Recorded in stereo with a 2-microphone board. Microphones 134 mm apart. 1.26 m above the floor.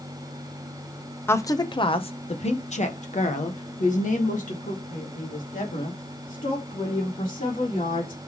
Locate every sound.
1.3 s a woman speaking: 15° left (ahead or behind), 0.6 m; by 8.2 s 80° left, 4 m